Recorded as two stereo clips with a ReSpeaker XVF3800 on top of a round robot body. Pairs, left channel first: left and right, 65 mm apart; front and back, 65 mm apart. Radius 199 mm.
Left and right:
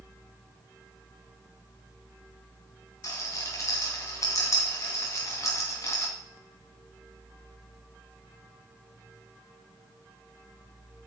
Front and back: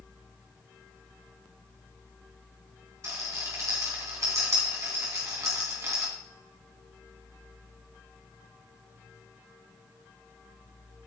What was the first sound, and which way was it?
A rattle, 135° left.